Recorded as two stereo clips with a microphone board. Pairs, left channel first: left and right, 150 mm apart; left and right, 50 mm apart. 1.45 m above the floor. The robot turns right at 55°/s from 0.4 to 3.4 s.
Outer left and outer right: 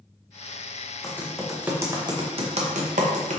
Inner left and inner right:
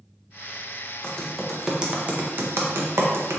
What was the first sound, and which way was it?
Typing on a keyboard, 20° left (ahead or behind).